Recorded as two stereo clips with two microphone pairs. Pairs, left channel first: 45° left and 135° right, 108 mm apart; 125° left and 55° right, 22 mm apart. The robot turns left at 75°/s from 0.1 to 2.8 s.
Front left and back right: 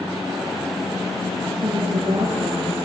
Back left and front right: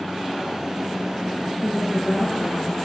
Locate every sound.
1.6 s a woman speaking: 120° right, 7.5 m; by 2.8 s 155° left, 7.5 m